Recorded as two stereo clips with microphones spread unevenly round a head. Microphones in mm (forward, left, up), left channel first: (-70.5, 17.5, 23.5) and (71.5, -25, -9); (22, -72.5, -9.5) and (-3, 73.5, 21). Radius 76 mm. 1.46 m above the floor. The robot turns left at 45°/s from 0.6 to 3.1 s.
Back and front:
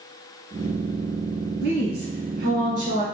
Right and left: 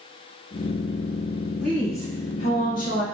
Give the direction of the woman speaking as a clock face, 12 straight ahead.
12 o'clock.